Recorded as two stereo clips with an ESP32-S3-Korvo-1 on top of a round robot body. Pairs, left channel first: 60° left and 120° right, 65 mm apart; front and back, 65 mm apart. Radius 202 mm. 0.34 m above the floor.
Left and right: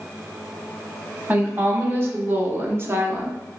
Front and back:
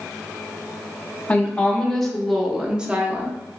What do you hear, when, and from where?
1.3 s a woman speaking: 70° right, 1.4 m; by 3.4 s 145° right, 1.0 m